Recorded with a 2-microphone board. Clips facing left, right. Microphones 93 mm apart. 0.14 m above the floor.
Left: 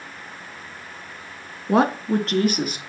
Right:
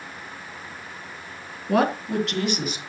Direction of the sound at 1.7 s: 30° left (ahead or behind).